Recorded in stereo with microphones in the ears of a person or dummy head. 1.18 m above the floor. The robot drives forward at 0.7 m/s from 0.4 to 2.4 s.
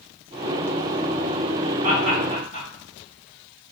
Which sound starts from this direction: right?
Laughter, at 1.8 s.